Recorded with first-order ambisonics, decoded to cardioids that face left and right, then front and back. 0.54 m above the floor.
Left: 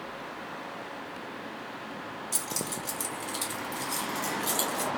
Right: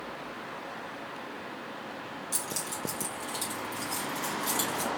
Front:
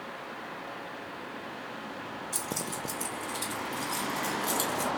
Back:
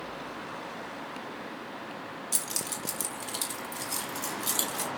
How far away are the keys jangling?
About 1.3 m.